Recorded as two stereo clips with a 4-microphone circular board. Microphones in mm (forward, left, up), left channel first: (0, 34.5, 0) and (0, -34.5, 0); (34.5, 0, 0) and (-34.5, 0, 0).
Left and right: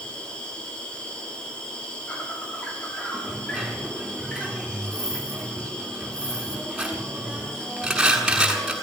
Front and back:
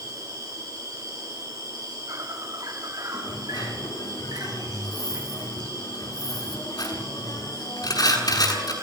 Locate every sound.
0.0 s an insect: 160° left, 7 m
3.1 s a dropped coin: 10° right, 7.5 m